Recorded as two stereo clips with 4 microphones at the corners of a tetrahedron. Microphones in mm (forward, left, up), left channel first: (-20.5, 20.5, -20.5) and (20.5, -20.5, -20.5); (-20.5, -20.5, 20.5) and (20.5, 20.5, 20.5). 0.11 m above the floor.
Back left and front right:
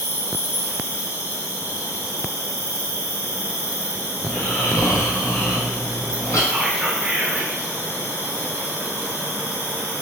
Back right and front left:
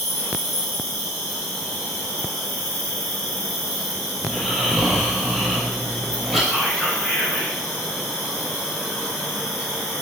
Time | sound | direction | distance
0.0 | an insect | 55° right | 1.8 m
4.2 | snoring | 135° left | 1.2 m
6.5 | whispering | 70° right | 1.6 m